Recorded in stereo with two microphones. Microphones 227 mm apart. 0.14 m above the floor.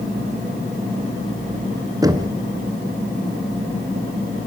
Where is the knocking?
15° right (ahead or behind), 1.5 m.